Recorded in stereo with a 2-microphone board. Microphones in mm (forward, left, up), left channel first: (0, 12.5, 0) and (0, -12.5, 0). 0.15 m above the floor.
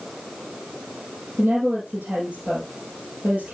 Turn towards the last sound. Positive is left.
turn(degrees=-60)  # may be behind; listen again after turning